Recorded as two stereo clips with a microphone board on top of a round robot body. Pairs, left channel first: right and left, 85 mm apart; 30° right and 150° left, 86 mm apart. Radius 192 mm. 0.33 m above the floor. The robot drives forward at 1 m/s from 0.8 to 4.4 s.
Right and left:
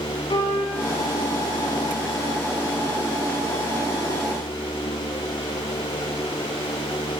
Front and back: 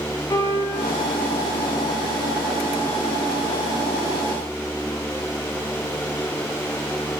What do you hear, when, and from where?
0.3 s a piano: 75° right, 4.5 m